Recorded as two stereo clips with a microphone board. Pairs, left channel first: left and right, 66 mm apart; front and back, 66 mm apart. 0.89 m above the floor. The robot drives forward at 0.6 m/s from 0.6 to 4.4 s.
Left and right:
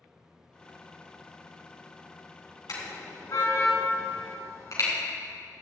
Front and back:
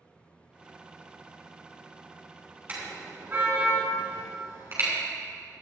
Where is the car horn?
120° left, 4.5 m; by 4.9 s 130° left, 5 m.